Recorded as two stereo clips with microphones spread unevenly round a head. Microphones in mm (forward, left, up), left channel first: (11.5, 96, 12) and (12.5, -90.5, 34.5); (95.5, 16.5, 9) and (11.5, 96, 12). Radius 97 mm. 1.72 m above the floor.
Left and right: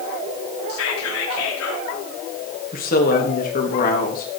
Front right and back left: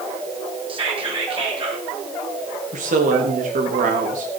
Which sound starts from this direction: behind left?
A woman speaking, at 2.7 s.